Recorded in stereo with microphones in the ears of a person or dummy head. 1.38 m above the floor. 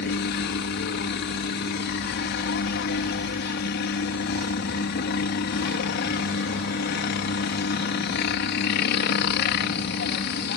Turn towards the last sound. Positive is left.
turn(degrees=50)  # may be behind; listen again after turning